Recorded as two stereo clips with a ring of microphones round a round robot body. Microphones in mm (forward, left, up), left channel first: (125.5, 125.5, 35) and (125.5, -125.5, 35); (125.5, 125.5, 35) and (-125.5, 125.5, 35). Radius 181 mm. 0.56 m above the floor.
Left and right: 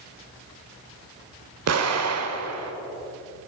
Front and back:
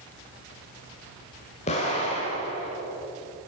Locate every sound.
1.7 s an explosion: 70° right, 1.2 m